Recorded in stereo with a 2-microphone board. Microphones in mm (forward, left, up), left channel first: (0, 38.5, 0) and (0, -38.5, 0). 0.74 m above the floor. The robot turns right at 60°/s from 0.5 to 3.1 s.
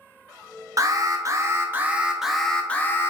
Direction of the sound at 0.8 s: 95° right.